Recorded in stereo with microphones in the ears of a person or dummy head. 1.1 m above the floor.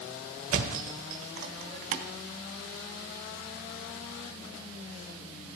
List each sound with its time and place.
0.5 s a thud: 45° right (ahead or behind), 1.2 m